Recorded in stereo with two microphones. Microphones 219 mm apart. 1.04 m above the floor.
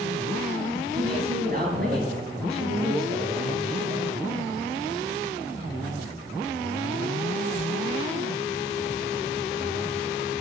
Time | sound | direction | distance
0.9 | a woman speaking | 45° right (ahead or behind) | 9.5 m